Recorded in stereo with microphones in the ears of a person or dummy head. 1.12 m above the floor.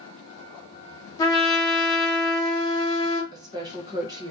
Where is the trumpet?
15° left (ahead or behind), 0.8 m.